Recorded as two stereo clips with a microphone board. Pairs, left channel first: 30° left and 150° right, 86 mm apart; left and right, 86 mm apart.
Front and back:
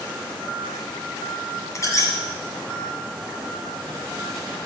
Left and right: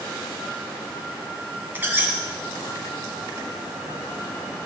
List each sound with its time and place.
1.8 s a squeak: 20° right, 1.3 m